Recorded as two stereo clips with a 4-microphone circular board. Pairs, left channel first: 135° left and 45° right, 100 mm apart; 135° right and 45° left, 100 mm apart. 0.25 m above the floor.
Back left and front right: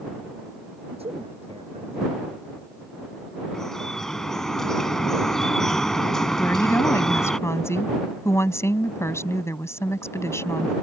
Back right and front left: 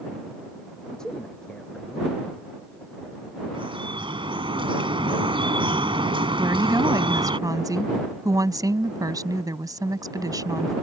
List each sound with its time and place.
0.9 s a man speaking: 50° right
3.5 s dripping: 50° left
6.4 s a woman speaking: 85° left